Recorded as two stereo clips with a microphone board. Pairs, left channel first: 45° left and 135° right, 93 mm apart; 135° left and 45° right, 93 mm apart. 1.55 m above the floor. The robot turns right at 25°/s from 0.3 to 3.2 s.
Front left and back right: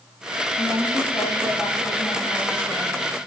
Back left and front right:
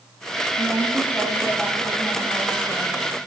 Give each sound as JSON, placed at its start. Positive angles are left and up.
{"t": 0.6, "sound": "a woman speaking", "azimuth_deg": 15, "distance_m": 3.0}